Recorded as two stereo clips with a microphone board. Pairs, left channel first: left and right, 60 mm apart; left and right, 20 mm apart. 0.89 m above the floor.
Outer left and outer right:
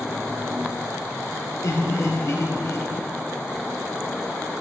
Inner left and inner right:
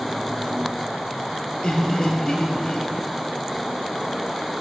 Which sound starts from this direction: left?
Laughter, at 1.6 s.